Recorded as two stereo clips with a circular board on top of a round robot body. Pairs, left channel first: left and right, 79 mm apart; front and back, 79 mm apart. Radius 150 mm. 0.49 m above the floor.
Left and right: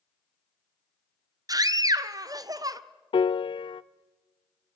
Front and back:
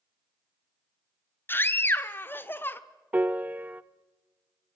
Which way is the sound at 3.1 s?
110° left.